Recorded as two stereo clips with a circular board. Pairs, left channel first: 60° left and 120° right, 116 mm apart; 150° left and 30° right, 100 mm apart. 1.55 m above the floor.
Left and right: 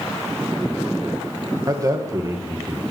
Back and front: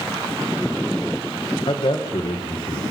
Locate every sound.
1.7 s a man speaking: straight behind, 1.5 m